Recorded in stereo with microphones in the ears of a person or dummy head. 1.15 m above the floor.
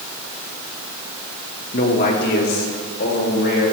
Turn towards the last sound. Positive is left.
turn(degrees=65)  # may be behind; listen again after turning